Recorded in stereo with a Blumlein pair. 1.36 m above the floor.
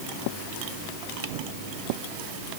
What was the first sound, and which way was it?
Only background noise.